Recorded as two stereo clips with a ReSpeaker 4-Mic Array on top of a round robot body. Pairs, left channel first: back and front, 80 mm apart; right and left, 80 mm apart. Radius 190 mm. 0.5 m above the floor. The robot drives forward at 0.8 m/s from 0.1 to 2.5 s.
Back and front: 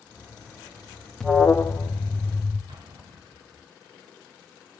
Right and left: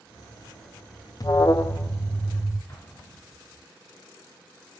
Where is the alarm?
100° right, 0.7 m; by 2.6 s 160° right, 1.3 m.